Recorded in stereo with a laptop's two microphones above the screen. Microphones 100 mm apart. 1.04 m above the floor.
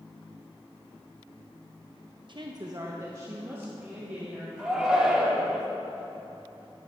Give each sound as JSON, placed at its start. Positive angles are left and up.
{"t": 2.3, "sound": "a woman speaking", "side_deg": -50, "distance_m": 0.8}
{"t": 4.6, "sound": "a shout", "side_deg": -10, "distance_m": 2.5}